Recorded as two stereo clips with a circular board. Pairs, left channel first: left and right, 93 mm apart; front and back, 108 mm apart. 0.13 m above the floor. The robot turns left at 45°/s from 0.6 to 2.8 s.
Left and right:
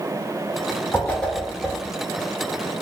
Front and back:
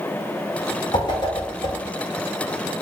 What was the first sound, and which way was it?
A whoosh, 25° left.